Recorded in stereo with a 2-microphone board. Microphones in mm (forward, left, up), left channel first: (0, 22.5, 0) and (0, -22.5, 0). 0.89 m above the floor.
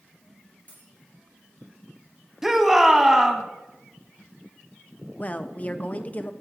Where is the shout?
10° right (ahead or behind), 1.2 m.